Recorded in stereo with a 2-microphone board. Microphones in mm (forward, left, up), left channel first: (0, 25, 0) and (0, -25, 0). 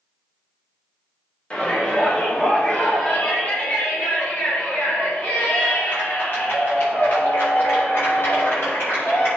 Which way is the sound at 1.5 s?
20° left (ahead or behind).